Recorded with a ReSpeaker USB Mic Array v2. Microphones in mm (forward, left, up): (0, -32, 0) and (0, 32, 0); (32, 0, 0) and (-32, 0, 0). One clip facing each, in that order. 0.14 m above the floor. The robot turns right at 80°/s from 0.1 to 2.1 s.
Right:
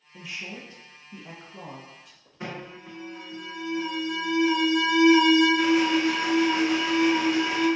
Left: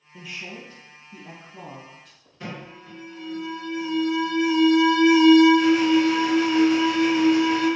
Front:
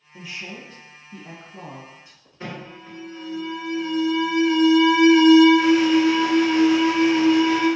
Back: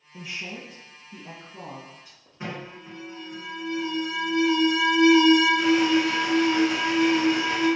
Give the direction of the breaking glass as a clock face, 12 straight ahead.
No breaking glass in this recording.